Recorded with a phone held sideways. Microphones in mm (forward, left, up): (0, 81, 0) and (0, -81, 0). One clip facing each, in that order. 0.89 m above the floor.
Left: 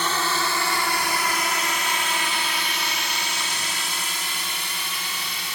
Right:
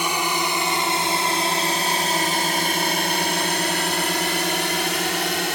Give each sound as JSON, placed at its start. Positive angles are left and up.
{"t": 0.0, "sound": "a drone", "side_deg": -15}